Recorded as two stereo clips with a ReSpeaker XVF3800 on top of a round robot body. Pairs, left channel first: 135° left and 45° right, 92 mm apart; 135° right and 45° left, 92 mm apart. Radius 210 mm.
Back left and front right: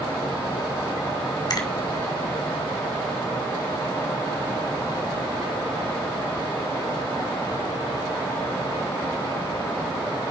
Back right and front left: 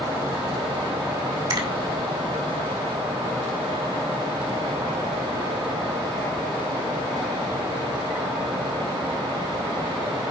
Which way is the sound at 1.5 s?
90° left.